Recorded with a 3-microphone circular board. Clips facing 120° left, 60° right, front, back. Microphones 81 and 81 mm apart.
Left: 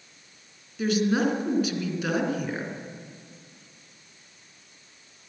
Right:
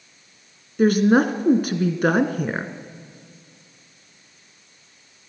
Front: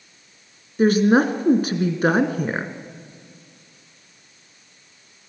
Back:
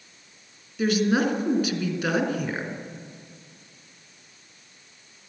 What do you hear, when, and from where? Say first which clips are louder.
0.8 s a woman speaking: right 7 dB, front 6 dB; 40° right, 1.7 m